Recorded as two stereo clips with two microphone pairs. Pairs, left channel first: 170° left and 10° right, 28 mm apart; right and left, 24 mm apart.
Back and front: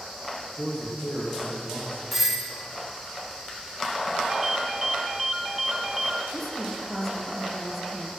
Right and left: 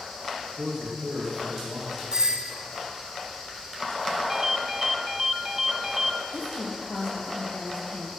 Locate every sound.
0.6 s a man speaking: 155° left, 6.5 m; by 2.0 s 175° left, 6 m
2.1 s a doorbell: 65° left, 1.7 m
4.3 s a ringtone: 50° left, 0.8 m
6.3 s a woman speaking: 105° right, 4 m